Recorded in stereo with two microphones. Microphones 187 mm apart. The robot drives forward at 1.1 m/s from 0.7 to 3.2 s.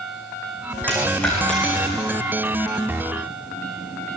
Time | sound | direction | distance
0.9 | a dropped coin | 5° left (ahead or behind) | 6 m